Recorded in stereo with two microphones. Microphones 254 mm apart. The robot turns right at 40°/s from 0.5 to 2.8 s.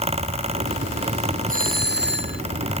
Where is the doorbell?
135° right; by 2.4 s 95° right.